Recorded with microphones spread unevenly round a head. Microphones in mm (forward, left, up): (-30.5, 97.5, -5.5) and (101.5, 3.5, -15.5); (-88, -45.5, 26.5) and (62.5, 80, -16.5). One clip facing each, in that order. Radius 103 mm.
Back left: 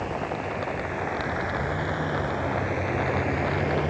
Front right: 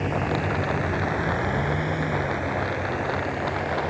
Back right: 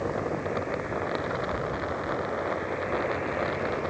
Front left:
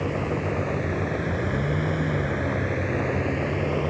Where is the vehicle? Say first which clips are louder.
Front right 4 dB, front left 3 dB; 10° right; by 3.9 s 85° left.